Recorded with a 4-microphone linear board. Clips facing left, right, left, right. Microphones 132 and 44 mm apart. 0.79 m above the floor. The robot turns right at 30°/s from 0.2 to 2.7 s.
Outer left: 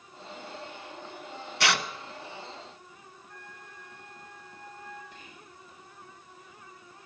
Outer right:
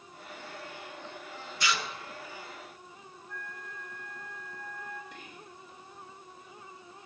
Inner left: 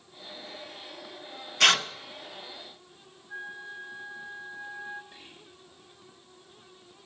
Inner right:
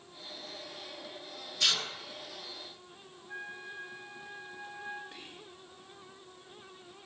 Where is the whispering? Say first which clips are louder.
Outer right 2 dB, inner right 2 dB; 75° right (ahead or behind), 2.5 m.